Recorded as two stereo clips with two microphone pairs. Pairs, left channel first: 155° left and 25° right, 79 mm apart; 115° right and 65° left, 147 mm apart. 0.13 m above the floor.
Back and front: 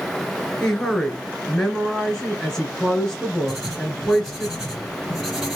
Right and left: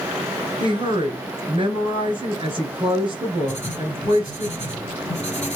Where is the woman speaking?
75° left, 1.5 m.